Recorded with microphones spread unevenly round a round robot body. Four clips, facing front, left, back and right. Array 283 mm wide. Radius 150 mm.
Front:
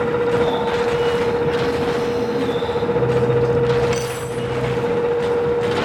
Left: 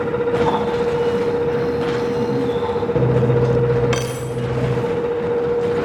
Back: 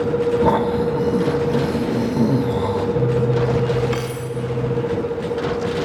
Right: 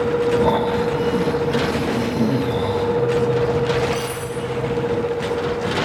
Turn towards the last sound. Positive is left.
turn(degrees=110)